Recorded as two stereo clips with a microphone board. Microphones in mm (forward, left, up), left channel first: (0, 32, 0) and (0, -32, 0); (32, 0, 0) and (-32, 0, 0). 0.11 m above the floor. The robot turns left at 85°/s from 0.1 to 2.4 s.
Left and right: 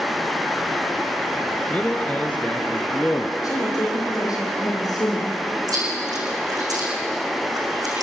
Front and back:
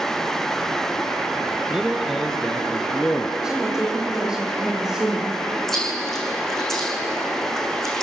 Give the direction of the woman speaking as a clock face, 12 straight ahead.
9 o'clock.